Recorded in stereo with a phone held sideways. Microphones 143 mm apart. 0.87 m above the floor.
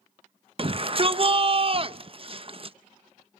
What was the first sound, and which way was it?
A shout, 40° right (ahead or behind).